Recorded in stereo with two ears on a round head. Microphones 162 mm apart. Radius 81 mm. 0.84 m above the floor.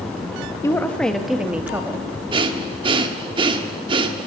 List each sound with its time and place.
0.6 s a woman speaking: 15° left (ahead or behind), 1.3 m; by 2.1 s 15° right (ahead or behind), 2 m
2.3 s breathing: 25° right (ahead or behind), 1.3 m